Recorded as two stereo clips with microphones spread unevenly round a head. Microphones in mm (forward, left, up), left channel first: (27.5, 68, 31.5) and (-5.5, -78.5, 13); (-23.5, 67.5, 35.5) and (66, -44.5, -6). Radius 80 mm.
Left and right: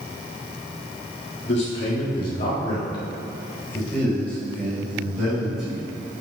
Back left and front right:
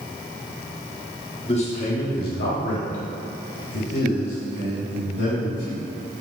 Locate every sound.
1.4 s a man speaking: 75° left, 1.9 m; by 5.8 s 175° left, 5 m